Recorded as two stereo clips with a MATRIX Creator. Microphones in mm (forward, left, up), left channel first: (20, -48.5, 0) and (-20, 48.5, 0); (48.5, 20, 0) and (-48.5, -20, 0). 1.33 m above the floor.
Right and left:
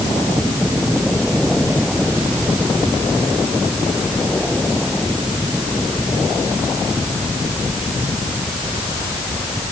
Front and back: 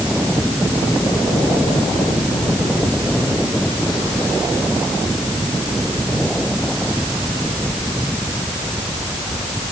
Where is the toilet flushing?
No toilet flushing in this recording.